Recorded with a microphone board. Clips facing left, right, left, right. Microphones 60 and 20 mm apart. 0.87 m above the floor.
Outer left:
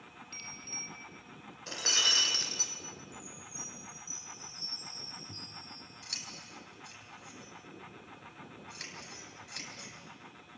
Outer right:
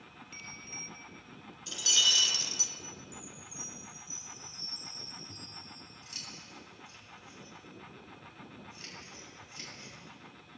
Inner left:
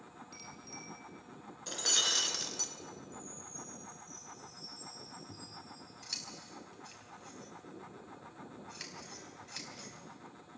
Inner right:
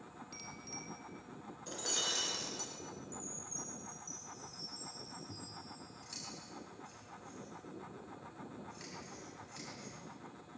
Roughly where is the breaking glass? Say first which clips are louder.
Outer right 1 dB, inner left 6 dB; left.